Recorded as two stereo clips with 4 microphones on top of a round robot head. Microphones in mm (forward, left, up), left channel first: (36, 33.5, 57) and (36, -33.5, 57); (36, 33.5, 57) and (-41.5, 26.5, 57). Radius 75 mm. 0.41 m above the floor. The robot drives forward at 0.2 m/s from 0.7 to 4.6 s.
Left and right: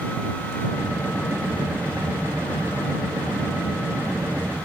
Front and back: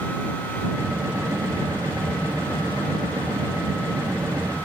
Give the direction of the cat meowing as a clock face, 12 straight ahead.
I don't hear a cat meowing.